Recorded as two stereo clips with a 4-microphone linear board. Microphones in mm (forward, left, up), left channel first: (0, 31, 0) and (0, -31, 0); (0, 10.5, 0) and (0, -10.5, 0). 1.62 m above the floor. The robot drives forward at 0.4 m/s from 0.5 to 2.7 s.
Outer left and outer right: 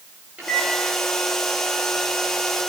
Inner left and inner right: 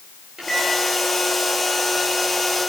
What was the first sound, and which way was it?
A microwave, 20° right (ahead or behind).